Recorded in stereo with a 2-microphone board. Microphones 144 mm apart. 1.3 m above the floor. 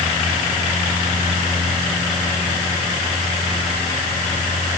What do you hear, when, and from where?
Only background noise.